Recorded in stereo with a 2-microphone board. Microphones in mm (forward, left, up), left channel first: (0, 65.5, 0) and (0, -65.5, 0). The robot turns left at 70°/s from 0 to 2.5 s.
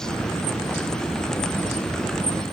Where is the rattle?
I don't hear a rattle.